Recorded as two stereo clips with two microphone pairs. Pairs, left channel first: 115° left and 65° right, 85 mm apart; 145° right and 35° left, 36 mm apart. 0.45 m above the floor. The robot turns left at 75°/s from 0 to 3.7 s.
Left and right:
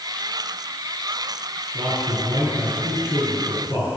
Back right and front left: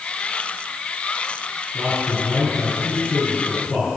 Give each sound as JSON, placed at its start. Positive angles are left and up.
{"t": 1.7, "sound": "a man speaking", "azimuth_deg": -55, "distance_m": 5.0}